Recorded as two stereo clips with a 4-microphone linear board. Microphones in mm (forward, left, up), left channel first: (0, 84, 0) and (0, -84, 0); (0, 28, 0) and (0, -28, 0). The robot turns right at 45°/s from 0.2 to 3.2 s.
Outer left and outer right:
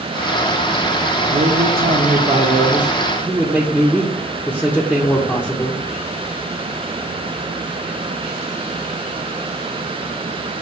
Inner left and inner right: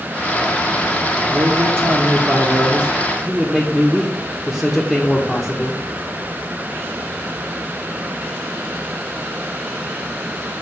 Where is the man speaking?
75° right, 0.6 m; by 5.8 s 10° left, 0.6 m.